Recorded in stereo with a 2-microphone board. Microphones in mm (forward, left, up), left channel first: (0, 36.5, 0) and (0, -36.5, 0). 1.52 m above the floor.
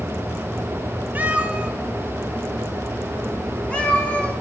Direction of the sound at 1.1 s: 25° right (ahead or behind).